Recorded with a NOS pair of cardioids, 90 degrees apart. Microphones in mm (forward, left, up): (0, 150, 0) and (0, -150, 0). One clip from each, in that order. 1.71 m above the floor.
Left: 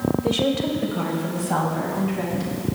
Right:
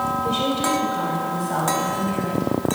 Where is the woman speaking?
40° left, 1.4 m; by 2.5 s 20° left, 3.5 m.